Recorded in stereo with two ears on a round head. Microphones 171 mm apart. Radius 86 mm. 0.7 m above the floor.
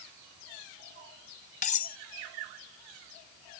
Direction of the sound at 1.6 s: 45° left (ahead or behind).